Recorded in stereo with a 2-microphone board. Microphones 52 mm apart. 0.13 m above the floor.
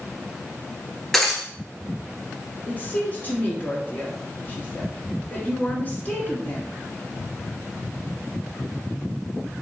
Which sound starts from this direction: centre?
Breaking glass, at 1.1 s.